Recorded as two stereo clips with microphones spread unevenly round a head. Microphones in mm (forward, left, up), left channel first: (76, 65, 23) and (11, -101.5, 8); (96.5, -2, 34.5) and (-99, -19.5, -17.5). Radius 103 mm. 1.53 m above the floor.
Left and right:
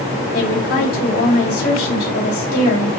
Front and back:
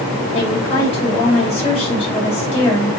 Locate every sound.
0.3 s a woman speaking: 70° left, 3 m